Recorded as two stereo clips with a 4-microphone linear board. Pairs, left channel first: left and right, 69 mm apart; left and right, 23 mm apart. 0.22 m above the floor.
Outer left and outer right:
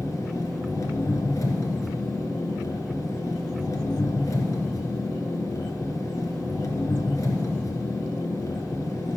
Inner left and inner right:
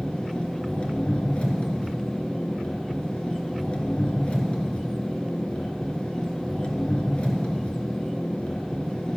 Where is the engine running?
55° left (ahead or behind), 2.5 m.